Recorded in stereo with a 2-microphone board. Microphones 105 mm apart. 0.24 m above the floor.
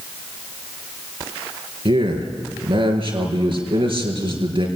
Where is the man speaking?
55° right (ahead or behind), 4 m.